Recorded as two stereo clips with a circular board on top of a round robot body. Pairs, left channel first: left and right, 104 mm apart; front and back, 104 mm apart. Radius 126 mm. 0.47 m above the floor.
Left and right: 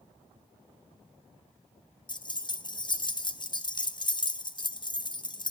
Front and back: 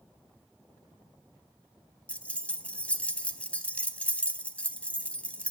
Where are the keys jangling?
75° left, 0.8 m.